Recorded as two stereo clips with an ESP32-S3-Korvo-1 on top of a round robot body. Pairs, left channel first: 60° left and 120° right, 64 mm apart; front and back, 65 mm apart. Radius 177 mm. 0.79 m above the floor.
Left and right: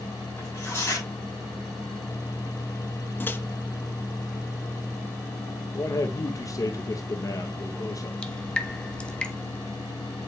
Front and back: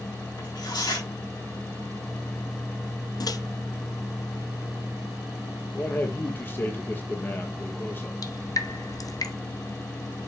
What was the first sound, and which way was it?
Tearing paper, 5° left.